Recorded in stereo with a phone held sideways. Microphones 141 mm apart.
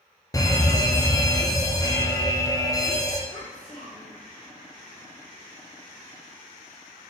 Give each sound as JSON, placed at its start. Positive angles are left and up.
{"t": 0.3, "sound": "a fire alarm", "side_deg": 25, "distance_m": 0.7}
{"t": 3.3, "sound": "a child speaking", "side_deg": -20, "distance_m": 3.0}